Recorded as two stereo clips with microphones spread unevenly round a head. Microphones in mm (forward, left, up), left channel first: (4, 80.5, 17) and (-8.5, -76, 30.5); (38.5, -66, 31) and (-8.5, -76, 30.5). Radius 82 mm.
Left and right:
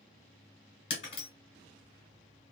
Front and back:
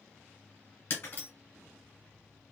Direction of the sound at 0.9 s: 40° left.